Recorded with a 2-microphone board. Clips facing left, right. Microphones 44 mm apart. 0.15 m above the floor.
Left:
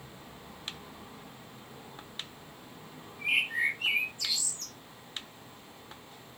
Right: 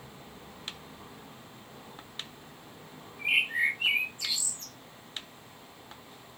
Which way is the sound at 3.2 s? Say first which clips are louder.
Right 2 dB; 25° right (ahead or behind).